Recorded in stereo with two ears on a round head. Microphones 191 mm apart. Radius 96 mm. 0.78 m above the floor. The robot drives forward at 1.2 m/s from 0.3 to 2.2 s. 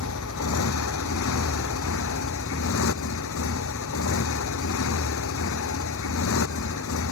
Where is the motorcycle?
80° left; by 7.1 s 75° left (ahead or behind).